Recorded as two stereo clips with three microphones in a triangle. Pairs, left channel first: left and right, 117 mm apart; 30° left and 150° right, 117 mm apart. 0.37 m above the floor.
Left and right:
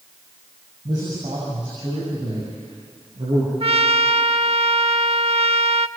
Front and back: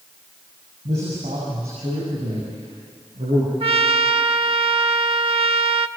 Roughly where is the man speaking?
Behind right.